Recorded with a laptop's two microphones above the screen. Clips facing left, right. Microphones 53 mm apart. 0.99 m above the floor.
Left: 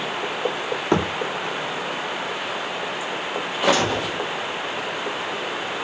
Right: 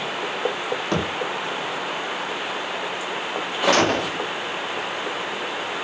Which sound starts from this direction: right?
A gunshot, at 3.7 s.